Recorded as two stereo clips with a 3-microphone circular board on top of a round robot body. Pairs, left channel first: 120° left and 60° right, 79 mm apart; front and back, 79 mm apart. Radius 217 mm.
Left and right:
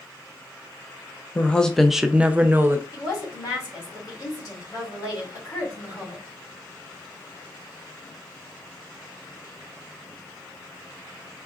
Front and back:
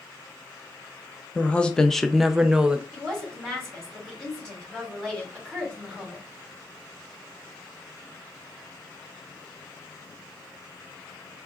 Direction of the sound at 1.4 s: 60° left.